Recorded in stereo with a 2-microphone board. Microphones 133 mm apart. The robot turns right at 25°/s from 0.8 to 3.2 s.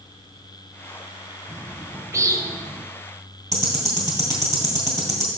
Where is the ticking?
25° right (ahead or behind), 2.5 m.